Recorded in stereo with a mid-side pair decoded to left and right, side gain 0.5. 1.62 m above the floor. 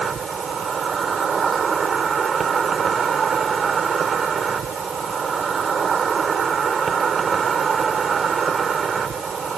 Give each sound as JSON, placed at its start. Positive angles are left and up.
{"t": 0.0, "sound": "an insect", "azimuth_deg": -40}